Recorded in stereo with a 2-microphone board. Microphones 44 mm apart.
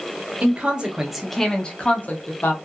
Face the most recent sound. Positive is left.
turn(degrees=50)  # may be behind; listen again after turning